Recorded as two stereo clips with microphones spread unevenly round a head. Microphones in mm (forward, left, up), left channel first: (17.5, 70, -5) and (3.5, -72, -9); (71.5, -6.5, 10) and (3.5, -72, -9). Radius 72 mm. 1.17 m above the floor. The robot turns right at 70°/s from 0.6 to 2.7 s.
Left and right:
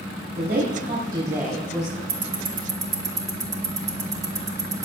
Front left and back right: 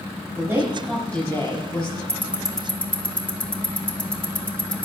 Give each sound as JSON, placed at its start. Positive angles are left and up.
{"t": 0.3, "sound": "a woman speaking", "azimuth_deg": -75, "distance_m": 5.5}
{"t": 2.1, "sound": "ticking", "azimuth_deg": -70, "distance_m": 1.7}